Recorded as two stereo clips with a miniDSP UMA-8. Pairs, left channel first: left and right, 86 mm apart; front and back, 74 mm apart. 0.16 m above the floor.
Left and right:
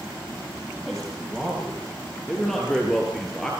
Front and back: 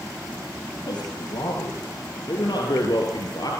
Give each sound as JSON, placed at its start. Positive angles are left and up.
{"t": 0.8, "sound": "a man speaking", "azimuth_deg": 5, "distance_m": 5.5}